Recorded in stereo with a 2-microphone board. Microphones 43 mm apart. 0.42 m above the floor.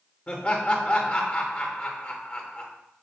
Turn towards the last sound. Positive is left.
turn(degrees=30)  # may be behind; listen again after turning